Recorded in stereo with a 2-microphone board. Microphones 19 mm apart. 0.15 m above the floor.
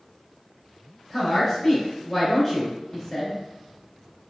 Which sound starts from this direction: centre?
A woman speaking, at 1.1 s.